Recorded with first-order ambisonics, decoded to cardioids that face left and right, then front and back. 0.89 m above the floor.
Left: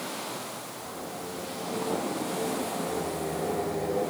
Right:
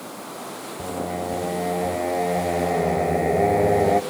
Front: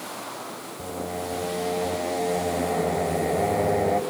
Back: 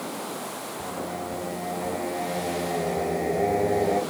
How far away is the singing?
About 2.5 m.